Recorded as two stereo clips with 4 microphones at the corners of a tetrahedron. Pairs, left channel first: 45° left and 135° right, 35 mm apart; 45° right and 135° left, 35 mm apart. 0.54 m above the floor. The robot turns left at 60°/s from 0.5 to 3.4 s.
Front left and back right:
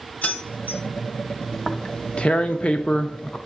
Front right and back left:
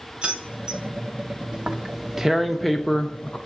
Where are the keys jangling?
80° left, 1.0 m; by 0.8 s 60° left, 1.0 m.